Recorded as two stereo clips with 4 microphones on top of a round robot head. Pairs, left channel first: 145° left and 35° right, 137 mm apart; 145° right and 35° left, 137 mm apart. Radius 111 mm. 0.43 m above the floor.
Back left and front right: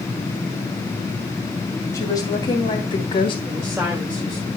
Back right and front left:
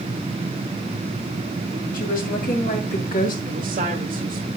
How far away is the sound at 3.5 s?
About 2 m.